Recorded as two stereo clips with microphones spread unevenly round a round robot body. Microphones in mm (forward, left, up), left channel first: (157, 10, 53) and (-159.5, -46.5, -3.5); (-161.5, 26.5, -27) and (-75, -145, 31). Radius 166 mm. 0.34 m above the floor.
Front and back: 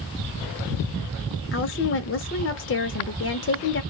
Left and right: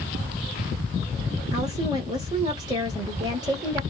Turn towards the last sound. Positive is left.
turn(degrees=20)